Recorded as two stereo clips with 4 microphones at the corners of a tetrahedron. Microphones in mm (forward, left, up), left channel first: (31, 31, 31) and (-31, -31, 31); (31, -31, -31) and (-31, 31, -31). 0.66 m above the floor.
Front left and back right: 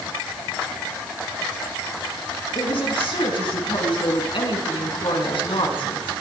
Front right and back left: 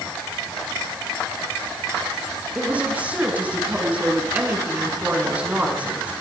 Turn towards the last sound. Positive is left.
turn(degrees=65)